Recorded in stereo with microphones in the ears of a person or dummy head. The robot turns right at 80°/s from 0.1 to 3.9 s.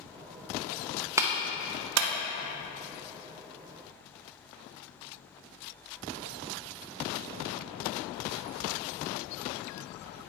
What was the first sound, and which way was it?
A clap, 10° right (ahead or behind).